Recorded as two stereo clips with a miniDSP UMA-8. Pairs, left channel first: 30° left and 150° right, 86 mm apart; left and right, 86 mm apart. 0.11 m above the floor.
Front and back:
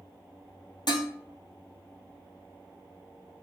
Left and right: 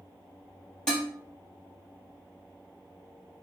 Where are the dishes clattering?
10° left, 1.8 m.